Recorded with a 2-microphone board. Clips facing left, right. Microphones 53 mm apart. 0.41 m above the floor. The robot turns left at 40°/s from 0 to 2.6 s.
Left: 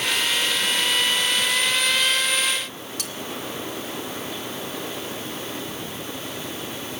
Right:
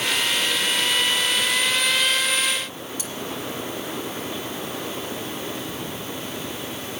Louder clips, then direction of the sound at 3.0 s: Even; 75° left (ahead or behind).